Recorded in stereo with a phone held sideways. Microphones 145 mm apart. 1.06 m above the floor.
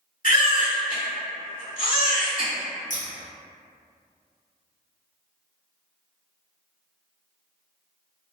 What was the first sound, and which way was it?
A baby crying, 75° left (ahead or behind).